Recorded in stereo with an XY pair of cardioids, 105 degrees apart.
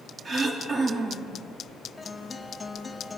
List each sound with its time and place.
0.2 s throat clearing: 35° right, 3.5 m
2.0 s a guitar: 15° left, 4 m